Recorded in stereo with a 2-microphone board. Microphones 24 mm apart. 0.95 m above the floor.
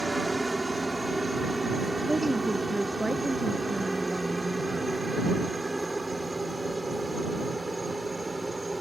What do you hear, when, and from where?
0.0 s a helicopter: centre (ahead or behind)
2.1 s a woman speaking: 15° right (ahead or behind)